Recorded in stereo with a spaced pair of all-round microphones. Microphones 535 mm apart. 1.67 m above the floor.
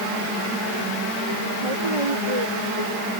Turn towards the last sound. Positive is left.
turn(degrees=-75)  # may be behind; listen again after turning